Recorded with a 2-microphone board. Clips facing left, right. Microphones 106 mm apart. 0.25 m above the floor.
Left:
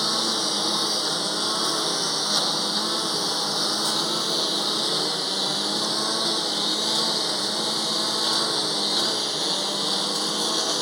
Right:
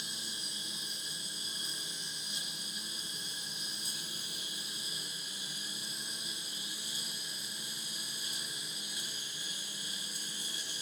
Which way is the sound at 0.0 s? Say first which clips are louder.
Left 22 dB; 85° left.